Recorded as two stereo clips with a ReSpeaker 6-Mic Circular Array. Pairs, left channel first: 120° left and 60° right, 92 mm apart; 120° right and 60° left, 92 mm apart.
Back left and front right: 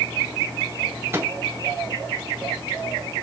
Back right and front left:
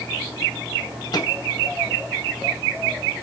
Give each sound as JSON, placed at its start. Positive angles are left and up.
{"t": 1.1, "sound": "a microwave", "azimuth_deg": -115, "distance_m": 0.8}